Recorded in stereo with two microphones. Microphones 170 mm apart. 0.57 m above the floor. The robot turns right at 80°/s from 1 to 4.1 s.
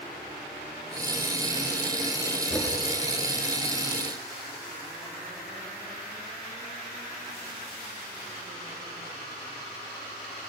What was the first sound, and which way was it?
Knocking, centre (ahead or behind).